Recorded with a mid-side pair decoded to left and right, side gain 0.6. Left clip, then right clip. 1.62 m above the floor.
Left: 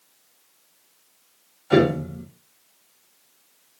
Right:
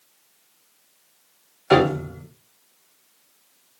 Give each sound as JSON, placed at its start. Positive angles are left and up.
{"t": 1.7, "sound": "a piano", "azimuth_deg": -60, "distance_m": 3.5}